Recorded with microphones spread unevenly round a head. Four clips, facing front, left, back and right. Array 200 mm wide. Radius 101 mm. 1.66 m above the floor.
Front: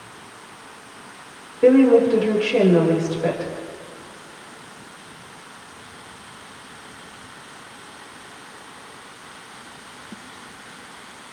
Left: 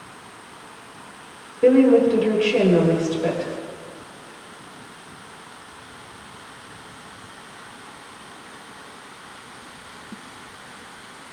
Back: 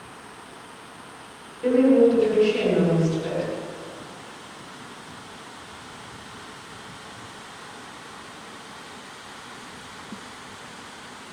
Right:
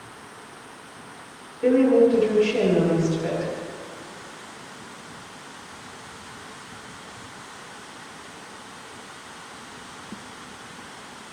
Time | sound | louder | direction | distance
1.6 | a woman speaking | left 3 dB, front 4 dB | 30° left | 9 m